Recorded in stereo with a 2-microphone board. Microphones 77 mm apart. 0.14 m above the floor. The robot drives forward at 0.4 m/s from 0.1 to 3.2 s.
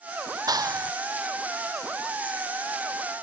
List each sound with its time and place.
0.5 s a clap: 55° right (ahead or behind)